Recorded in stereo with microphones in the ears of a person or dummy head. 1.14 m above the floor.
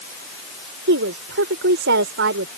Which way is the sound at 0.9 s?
55° right (ahead or behind).